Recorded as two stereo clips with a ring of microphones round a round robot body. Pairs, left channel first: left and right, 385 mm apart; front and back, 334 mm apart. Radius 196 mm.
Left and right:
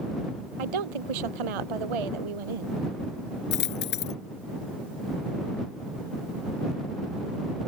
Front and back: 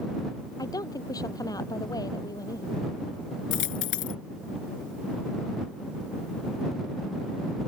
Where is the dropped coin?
25° left.